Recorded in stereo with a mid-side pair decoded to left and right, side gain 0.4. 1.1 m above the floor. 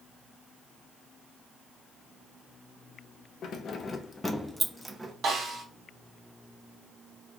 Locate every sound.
3.4 s keys jangling: 70° left, 0.6 m; by 5.1 s 20° right, 0.8 m
5.2 s a snare drum: 55° right, 1.3 m